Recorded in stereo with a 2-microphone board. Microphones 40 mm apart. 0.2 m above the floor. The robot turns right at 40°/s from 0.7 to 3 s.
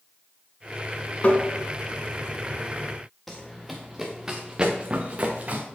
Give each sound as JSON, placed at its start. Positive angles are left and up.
{"t": 1.2, "sound": "tapping", "side_deg": 35, "distance_m": 1.5}
{"t": 3.3, "sound": "running footsteps", "side_deg": 5, "distance_m": 1.6}